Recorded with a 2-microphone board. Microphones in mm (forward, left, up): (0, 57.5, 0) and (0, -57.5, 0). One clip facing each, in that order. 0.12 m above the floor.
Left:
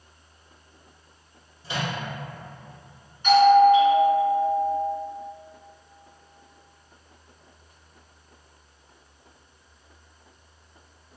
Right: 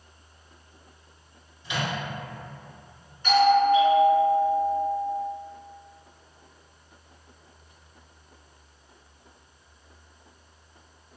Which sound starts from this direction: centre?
A doorbell, at 3.2 s.